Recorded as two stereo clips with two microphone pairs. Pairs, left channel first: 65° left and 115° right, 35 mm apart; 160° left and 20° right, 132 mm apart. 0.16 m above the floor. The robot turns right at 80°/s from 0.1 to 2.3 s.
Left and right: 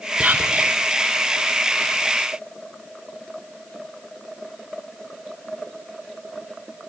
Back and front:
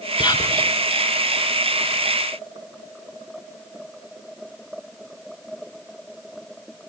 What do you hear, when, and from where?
0.2 s whispering: 160° right, 1.7 m; by 0.7 s 120° right, 1.7 m